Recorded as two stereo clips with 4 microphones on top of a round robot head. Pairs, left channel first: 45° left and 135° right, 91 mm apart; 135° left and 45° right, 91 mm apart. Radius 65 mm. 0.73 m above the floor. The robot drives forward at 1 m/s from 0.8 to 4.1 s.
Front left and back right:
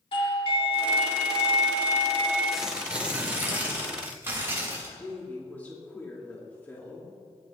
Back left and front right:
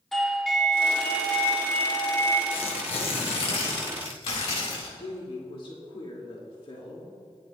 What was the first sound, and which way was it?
A doorbell, 50° left.